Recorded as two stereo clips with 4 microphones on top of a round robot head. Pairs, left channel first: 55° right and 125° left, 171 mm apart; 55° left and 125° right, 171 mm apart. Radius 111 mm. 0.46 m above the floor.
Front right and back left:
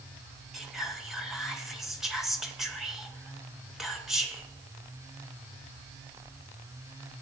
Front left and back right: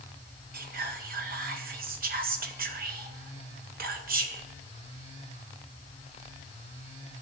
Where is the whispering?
145° right, 1.8 m.